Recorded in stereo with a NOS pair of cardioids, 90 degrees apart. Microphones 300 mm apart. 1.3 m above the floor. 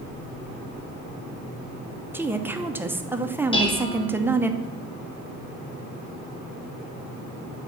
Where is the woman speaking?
5° right, 0.7 m.